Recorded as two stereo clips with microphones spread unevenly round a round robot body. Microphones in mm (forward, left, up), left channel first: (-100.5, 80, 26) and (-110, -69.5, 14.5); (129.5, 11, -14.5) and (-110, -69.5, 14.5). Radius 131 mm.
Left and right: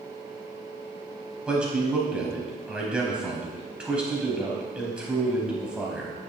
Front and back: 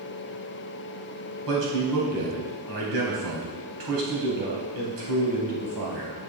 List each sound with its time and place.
1.5 s a man speaking: 175° right, 3.5 m